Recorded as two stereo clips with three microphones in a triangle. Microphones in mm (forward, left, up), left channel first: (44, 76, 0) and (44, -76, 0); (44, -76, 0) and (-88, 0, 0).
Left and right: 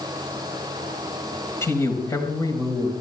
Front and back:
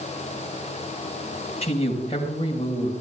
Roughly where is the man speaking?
Ahead.